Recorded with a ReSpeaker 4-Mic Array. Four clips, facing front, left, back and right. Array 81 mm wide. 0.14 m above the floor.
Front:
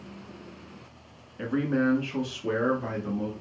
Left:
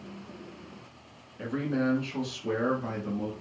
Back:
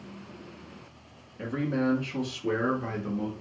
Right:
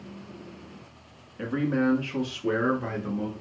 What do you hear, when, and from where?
1.4 s a man speaking: 40° right, 1.4 m; by 3.3 s 105° right, 1.7 m